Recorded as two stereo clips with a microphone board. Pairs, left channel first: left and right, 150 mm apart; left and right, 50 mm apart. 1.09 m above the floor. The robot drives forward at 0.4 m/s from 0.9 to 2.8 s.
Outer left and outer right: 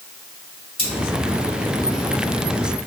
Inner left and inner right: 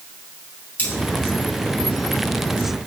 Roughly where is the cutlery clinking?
Left.